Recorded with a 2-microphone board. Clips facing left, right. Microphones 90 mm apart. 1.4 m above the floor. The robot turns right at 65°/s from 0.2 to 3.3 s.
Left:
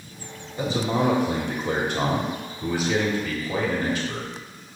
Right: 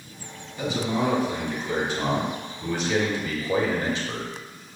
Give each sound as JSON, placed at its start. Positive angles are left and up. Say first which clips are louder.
{"t": 0.6, "sound": "a man speaking", "louder": "left 2 dB", "azimuth_deg": 30, "distance_m": 1.5}